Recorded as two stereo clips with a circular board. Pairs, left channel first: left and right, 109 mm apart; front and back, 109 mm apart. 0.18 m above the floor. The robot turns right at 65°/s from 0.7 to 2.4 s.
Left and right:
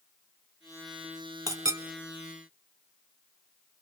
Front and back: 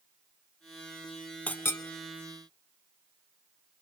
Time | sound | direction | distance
1.5 | a clink | 70° right | 0.8 m